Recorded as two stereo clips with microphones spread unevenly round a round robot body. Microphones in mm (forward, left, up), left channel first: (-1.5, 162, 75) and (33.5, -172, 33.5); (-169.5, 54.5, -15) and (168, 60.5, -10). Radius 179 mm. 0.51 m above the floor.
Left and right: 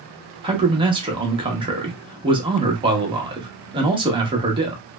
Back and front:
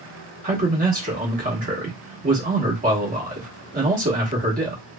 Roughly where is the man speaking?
Ahead right.